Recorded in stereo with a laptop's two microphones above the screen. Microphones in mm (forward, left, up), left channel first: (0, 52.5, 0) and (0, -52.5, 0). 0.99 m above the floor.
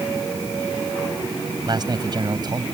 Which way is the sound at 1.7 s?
40° right (ahead or behind).